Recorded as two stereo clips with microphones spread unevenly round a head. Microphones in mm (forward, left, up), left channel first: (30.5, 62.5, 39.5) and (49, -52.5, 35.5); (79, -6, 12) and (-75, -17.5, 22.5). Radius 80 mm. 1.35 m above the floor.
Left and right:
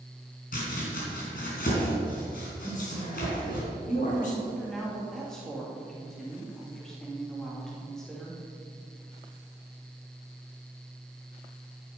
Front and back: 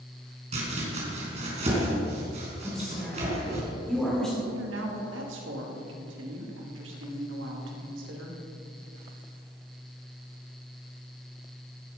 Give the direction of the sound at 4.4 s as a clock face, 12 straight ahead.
6 o'clock.